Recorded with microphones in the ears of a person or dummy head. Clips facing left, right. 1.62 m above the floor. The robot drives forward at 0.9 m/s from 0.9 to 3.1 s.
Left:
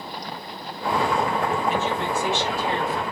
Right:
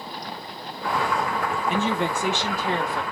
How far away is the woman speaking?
About 1.5 m.